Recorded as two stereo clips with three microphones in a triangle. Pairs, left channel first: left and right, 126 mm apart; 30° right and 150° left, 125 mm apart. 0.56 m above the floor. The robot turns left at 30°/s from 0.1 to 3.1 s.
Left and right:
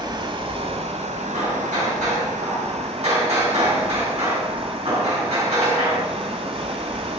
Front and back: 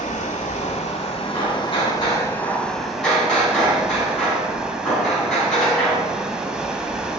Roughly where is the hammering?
Ahead right.